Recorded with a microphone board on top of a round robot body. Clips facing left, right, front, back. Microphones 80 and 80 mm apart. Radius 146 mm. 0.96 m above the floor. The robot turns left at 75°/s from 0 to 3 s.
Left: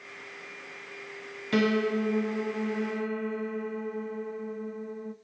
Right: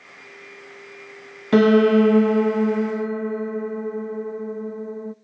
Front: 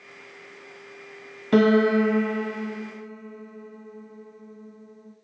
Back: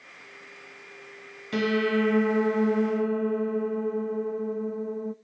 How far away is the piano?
About 0.7 m.